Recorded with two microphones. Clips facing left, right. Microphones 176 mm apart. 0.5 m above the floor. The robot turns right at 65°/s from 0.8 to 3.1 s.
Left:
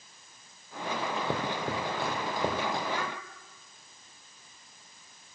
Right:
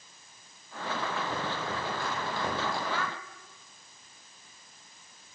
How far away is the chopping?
About 4.5 m.